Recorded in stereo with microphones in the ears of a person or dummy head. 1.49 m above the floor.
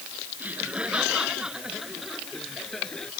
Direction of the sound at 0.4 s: 5° right (ahead or behind).